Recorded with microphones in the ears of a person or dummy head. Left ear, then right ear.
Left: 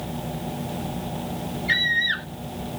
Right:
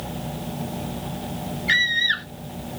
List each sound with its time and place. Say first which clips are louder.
1.7 s a scream: right 2 dB; 25° right (ahead or behind)